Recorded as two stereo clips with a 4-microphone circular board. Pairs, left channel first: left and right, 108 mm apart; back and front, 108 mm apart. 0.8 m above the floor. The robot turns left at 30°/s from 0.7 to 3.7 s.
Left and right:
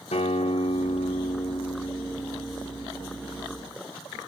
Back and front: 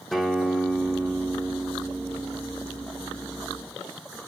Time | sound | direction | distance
0.1 | a guitar | 90° left | 0.9 m